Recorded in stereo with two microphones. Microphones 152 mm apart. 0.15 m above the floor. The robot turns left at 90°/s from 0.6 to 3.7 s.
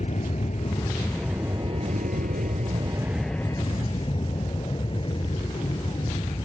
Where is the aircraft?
55° left; by 6.5 s 140° left.